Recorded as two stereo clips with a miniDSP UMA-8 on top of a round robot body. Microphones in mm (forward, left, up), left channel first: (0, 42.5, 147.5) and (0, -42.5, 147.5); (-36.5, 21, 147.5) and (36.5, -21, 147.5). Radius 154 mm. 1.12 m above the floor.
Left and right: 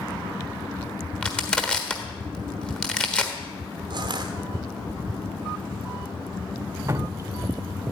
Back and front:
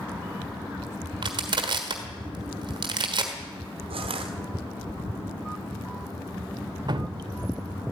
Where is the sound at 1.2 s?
10° left, 1.3 m.